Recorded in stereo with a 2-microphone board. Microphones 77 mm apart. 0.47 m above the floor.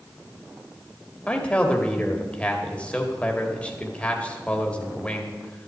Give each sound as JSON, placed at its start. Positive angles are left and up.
{"t": 1.3, "sound": "a man speaking", "side_deg": 15, "distance_m": 1.9}